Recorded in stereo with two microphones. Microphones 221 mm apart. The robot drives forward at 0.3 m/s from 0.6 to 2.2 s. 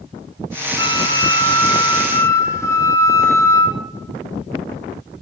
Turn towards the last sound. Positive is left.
turn(degrees=15)  # may be behind; listen again after turning